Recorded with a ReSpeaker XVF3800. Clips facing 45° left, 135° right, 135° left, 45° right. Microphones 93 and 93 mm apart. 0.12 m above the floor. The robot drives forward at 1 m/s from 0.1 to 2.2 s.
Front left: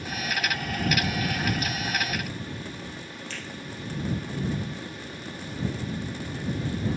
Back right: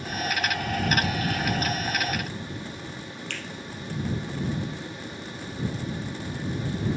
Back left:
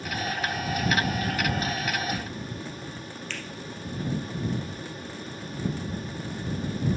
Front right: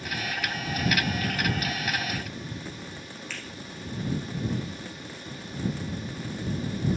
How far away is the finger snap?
About 2.5 m.